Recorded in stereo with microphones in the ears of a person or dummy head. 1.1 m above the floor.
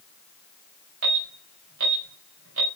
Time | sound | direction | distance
1.0 | an alarm | 75° right (ahead or behind) | 6 m